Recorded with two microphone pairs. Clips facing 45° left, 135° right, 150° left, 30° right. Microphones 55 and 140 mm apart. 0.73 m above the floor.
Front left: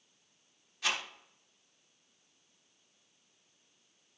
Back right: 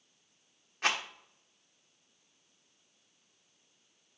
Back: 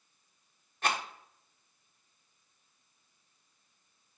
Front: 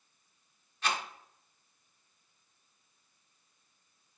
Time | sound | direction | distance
0.8 | a rattle | 175° right | 1.3 m